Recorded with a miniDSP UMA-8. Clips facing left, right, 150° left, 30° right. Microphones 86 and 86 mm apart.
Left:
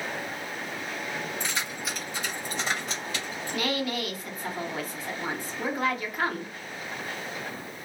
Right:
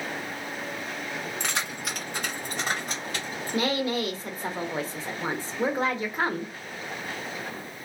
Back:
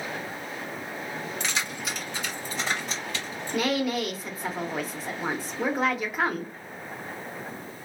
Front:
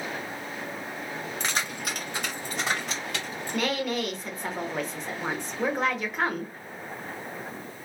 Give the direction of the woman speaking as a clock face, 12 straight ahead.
4 o'clock.